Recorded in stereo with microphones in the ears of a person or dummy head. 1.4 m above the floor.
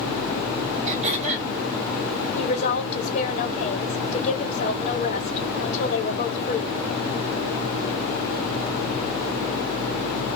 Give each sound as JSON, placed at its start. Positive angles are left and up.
{"t": 0.9, "sound": "throat clearing", "side_deg": -40, "distance_m": 2.0}
{"t": 2.4, "sound": "a woman speaking", "side_deg": 40, "distance_m": 1.3}